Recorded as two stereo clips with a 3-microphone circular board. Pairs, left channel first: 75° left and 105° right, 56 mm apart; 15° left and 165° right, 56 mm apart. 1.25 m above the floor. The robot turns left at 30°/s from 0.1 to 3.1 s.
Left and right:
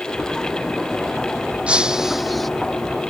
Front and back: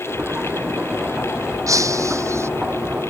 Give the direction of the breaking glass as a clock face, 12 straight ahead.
6 o'clock.